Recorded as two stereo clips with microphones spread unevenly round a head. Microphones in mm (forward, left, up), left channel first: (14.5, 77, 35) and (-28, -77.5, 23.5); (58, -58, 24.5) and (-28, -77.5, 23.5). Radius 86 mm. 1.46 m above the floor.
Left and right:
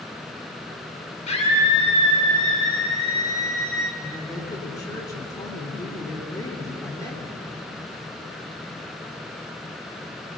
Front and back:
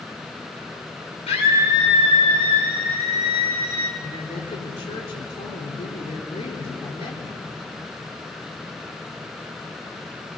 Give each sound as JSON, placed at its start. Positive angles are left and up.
{"t": 1.3, "sound": "a scream", "azimuth_deg": 20, "distance_m": 5.0}
{"t": 4.0, "sound": "a woman speaking", "azimuth_deg": 5, "distance_m": 3.5}